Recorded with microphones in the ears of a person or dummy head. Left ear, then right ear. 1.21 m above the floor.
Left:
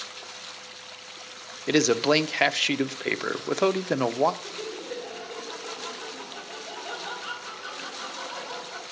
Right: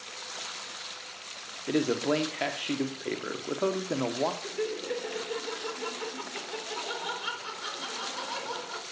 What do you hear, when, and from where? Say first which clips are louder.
1.7 s a man speaking: left 6 dB; 60° left (ahead or behind), 0.7 m
4.4 s laughter: right 2 dB; 70° right (ahead or behind), 3.5 m